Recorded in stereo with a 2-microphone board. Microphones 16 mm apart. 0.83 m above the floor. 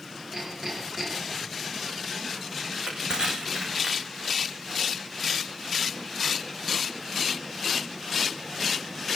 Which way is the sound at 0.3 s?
25° right (ahead or behind).